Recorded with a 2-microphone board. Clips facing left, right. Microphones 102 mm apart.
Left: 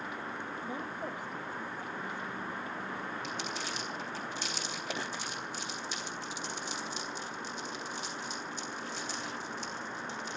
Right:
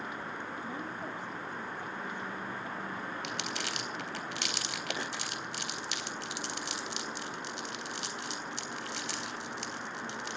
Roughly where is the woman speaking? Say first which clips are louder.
Left 1 dB; centre.